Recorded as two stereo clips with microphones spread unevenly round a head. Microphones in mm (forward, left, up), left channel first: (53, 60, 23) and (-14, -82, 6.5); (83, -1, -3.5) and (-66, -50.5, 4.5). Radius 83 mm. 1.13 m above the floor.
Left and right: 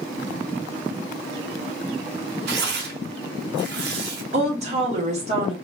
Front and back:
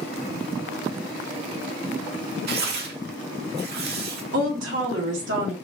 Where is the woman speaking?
165° right, 2.5 m.